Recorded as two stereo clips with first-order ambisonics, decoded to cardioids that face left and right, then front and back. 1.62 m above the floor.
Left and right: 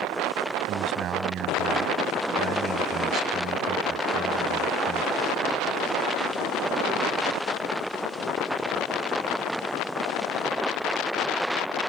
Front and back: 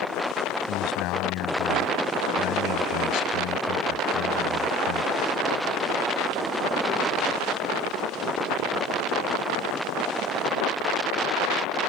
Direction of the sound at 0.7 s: 35° right.